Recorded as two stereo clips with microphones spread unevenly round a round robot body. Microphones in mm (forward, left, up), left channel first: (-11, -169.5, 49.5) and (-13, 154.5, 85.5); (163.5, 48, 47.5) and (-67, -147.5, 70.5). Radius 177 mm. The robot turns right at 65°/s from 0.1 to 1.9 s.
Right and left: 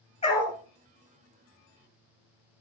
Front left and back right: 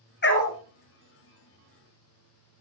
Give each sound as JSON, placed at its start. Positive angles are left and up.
{"t": 0.2, "sound": "a dog barking", "azimuth_deg": -15, "distance_m": 1.9}